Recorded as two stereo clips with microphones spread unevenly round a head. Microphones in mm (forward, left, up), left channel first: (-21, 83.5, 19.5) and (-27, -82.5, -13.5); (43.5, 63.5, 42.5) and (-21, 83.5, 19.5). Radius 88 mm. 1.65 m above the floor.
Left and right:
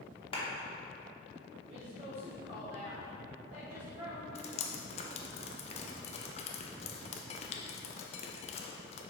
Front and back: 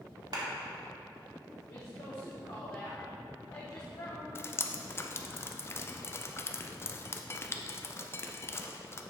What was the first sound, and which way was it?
A clap, 145° left.